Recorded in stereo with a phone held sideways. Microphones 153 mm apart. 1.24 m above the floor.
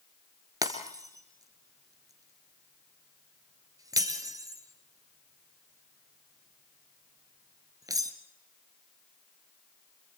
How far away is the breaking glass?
About 1.6 m.